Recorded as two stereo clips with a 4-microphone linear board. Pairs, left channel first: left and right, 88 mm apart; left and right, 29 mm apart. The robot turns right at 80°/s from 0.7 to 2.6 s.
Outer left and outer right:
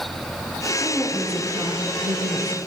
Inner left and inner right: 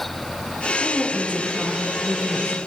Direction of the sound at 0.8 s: 165° left.